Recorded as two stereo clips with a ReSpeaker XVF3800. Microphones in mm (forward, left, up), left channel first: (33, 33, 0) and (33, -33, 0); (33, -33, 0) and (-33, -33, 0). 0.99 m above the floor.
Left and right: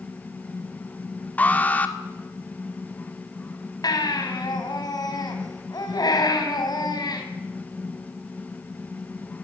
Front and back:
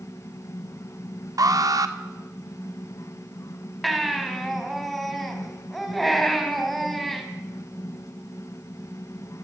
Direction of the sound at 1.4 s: 155° left.